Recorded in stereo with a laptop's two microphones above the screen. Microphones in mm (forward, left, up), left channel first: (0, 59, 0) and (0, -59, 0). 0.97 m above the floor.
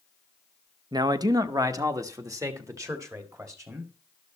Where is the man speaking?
35° right (ahead or behind), 0.6 m; by 3.9 s 25° right (ahead or behind), 2 m.